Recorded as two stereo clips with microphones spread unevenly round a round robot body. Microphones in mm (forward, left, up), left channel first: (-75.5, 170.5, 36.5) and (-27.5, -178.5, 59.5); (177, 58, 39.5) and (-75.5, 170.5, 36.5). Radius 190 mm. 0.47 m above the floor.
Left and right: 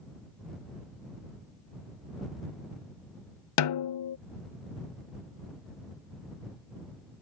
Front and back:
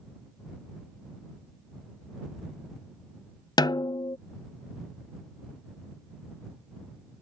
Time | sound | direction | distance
3.6 | a snare drum | 55° left | ?